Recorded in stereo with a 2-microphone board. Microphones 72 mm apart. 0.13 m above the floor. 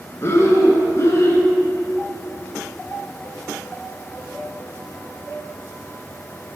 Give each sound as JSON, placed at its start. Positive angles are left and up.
{"t": 0.2, "sound": "breathing", "side_deg": 40, "distance_m": 0.7}